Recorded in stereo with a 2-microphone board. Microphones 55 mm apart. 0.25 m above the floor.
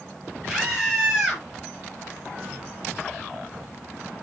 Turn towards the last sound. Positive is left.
turn(degrees=-10)  # may be behind; listen again after turning